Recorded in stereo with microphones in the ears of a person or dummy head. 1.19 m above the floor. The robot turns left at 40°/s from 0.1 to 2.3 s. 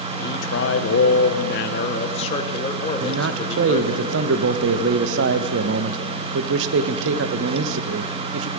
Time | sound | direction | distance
0.2 | a man speaking | 120° left | 0.9 m
3.0 | a man speaking | 65° right (ahead or behind) | 0.7 m